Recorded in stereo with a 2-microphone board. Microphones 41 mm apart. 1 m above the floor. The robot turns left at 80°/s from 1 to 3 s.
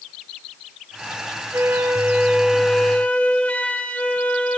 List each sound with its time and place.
1.5 s a flute: 95° right, 2.0 m; by 4.6 s 145° left, 2.0 m